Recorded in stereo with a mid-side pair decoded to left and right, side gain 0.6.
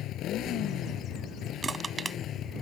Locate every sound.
0.0 s a motorcycle: 60° left; by 2.6 s 50° left
1.6 s crushing: 25° right